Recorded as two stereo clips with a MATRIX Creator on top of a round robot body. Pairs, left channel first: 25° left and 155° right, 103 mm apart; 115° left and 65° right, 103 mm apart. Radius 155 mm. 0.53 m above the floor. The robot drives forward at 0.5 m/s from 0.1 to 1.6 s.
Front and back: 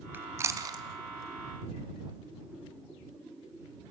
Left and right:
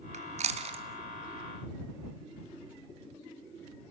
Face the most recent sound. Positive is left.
turn(degrees=-120)